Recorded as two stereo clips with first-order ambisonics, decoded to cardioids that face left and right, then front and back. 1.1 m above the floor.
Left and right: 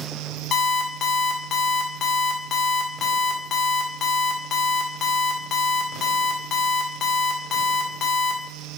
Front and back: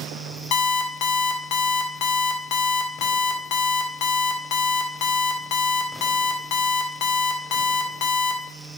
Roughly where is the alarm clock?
Ahead left.